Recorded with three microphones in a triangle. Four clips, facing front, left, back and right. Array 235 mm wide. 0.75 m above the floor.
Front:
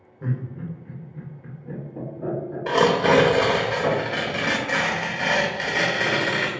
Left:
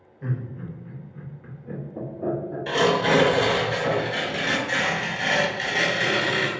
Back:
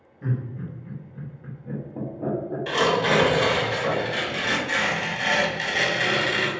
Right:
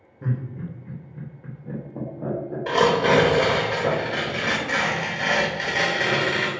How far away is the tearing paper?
About 0.6 m.